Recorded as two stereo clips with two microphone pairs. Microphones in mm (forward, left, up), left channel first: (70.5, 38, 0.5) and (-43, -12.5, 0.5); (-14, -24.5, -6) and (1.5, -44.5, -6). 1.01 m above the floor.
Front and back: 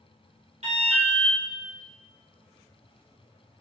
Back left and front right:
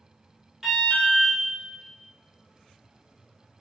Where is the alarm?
130° right, 1.9 m.